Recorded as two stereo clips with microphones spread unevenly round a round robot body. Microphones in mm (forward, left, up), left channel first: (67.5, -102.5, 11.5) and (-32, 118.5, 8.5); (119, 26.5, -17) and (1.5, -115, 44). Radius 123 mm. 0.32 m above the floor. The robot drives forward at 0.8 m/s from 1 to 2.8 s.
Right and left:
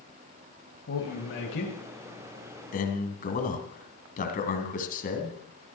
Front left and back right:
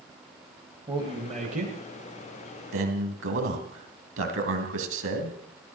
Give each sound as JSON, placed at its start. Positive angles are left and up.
{"t": 0.9, "sound": "a man speaking", "azimuth_deg": -60, "distance_m": 2.0}
{"t": 2.7, "sound": "a man speaking", "azimuth_deg": -120, "distance_m": 2.5}